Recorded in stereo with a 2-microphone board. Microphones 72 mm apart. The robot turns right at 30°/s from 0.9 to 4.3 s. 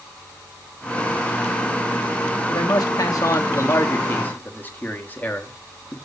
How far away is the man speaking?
About 1.2 m.